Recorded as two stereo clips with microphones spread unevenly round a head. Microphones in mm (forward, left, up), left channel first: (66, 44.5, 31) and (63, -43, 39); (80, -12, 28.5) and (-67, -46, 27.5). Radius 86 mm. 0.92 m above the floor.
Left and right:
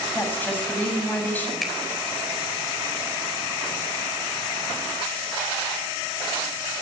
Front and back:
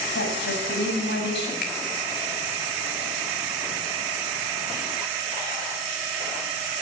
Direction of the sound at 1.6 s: Straight ahead.